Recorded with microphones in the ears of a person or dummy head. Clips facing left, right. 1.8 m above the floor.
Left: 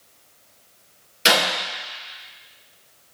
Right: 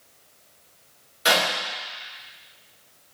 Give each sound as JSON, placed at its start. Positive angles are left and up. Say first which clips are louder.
{"t": 1.2, "sound": "a clap", "louder": "left 2 dB", "side_deg": 40, "distance_m": 2.5}